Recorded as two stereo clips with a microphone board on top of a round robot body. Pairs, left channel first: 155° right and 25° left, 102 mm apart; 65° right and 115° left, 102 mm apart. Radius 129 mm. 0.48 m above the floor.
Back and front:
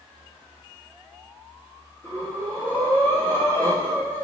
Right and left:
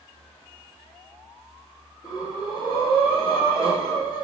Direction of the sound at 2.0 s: 95° right.